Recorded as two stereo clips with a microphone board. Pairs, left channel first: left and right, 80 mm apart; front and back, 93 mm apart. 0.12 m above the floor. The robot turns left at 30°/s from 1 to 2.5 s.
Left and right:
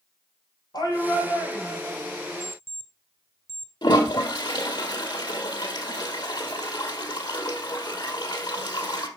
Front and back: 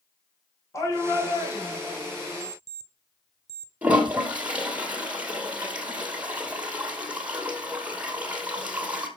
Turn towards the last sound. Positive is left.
turn(degrees=105)